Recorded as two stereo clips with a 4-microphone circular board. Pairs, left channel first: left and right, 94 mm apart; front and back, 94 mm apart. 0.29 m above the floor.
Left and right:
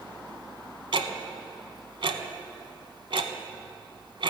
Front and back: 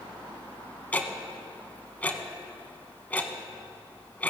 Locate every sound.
0.9 s ticking: 70° right, 0.9 m